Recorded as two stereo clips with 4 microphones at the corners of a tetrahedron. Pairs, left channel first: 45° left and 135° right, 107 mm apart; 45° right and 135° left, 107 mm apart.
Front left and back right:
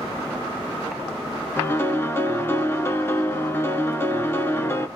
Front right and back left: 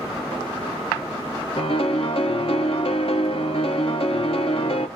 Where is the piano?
20° right, 0.7 m.